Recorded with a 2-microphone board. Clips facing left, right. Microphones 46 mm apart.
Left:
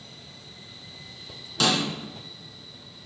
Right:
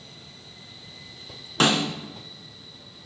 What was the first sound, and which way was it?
A snare drum, 35° right (ahead or behind).